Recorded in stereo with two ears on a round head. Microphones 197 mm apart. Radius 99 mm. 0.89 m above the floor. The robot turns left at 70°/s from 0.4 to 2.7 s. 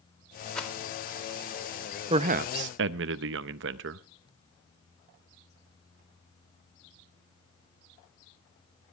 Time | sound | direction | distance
0.6 | a rattle | 5° left (ahead or behind) | 2 m
2.1 | a man speaking | 25° right | 0.6 m